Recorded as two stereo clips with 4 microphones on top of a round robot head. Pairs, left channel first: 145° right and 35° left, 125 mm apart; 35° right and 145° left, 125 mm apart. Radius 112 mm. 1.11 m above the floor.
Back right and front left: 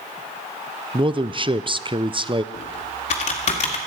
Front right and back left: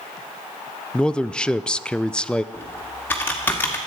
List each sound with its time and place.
0.9 s a man speaking: 45° left, 0.5 m
2.5 s typing on a keyboard: 110° right, 1.8 m